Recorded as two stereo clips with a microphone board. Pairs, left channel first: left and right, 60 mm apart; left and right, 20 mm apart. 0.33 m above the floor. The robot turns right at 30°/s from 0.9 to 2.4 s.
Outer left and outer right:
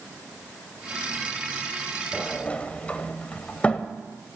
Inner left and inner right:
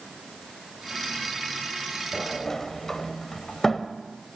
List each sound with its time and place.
2.1 s a sliding door: 15° left (ahead or behind), 0.7 m; by 3.9 s 20° left (ahead or behind), 0.7 m